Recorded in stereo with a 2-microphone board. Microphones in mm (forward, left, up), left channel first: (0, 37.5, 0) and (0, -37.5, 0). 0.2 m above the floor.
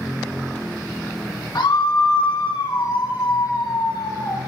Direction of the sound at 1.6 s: 65° left (ahead or behind).